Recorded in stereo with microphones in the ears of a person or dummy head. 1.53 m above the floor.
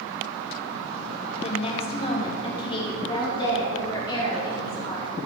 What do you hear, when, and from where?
1.4 s a woman speaking: 30° left (ahead or behind), 1.2 m; by 5.1 s 20° left (ahead or behind), 4 m